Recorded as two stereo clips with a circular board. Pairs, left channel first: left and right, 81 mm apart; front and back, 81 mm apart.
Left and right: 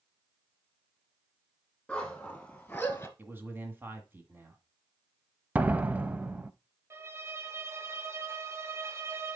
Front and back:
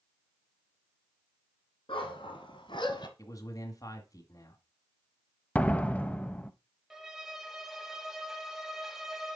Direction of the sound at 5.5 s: 45° right.